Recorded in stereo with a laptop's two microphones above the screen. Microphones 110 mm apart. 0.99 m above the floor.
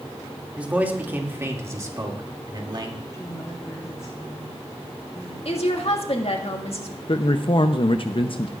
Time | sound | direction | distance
0.6 | a man speaking | 10° right (ahead or behind) | 2 m
3.1 | a woman speaking | 25° left (ahead or behind) | 4 m
5.5 | a woman speaking | 60° left (ahead or behind) | 1.7 m
7.1 | a man speaking | 50° left (ahead or behind) | 0.6 m